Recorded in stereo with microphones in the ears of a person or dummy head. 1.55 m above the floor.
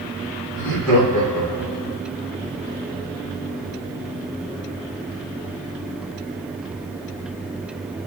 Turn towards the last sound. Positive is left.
turn(degrees=-10)  # may be behind; listen again after turning